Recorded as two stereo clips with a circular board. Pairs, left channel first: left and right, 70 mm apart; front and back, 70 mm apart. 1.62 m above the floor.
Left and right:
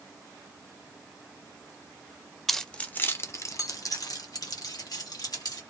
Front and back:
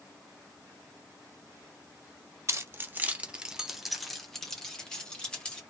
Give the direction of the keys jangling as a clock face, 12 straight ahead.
6 o'clock.